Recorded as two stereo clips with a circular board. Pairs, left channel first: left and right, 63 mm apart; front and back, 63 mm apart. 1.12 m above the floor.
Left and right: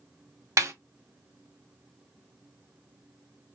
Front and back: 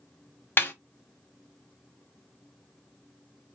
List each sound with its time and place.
0.6 s a snare drum: 55° right, 0.9 m